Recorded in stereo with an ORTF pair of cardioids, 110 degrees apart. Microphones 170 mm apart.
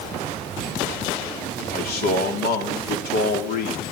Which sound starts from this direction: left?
A man speaking, at 1.7 s.